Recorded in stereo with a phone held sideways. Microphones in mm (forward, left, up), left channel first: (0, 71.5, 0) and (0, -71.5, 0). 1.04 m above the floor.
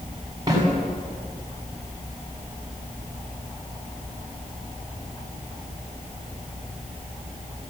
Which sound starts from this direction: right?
A snare drum, at 0.5 s.